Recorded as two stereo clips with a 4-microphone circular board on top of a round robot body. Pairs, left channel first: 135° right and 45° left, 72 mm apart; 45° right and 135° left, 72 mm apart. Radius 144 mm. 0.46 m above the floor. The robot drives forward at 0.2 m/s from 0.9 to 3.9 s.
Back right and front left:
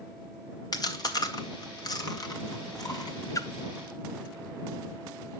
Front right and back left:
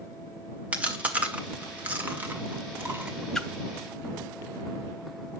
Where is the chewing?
155° right, 1.7 m; by 3.2 s 160° right, 2 m.